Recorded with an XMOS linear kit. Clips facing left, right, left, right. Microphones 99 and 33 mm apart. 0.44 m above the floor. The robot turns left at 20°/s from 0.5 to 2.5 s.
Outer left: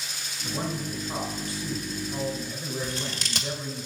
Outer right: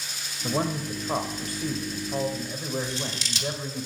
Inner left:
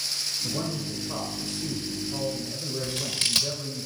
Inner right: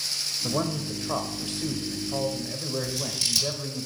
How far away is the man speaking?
About 1.7 m.